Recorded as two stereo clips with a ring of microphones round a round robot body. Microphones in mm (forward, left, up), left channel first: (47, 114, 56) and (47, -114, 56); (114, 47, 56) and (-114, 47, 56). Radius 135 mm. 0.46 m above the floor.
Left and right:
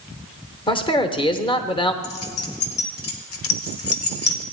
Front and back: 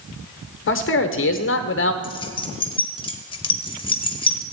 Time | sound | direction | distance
0.7 | a man speaking | 25° left | 1.3 m
2.0 | keys jangling | 70° left | 1.3 m